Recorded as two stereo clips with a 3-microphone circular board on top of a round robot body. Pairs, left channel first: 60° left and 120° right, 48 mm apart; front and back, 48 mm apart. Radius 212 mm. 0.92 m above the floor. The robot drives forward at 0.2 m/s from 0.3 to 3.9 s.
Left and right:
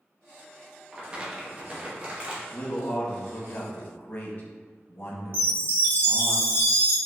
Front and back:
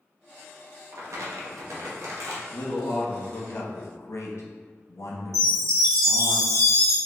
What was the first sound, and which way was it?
Crumpling, 170° left.